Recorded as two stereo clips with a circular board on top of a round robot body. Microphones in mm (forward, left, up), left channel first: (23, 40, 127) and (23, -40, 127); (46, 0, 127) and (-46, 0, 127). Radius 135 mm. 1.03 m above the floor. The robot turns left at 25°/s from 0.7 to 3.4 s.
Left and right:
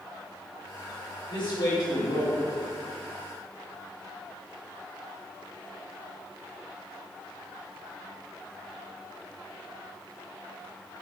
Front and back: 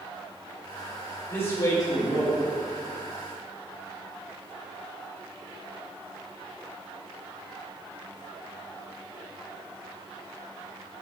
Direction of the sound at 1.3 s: 60° left.